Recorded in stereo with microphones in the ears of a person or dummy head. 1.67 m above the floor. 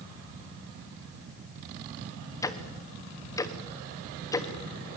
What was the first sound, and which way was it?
Ticking, 10° left (ahead or behind).